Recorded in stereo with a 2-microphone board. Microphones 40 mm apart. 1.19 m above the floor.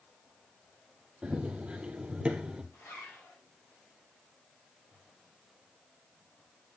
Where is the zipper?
75° left (ahead or behind), 6 m.